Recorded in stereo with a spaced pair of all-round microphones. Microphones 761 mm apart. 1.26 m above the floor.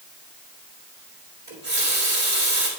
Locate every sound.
1.5 s a running tap: 50° right (ahead or behind), 3 m